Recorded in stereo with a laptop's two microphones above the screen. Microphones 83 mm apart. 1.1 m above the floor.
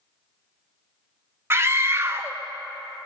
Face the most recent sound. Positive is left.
turn(degrees=-30)  # may be behind; listen again after turning